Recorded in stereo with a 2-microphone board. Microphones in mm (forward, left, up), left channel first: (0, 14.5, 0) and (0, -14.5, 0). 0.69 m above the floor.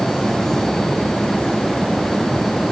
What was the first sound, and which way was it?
Only background noise.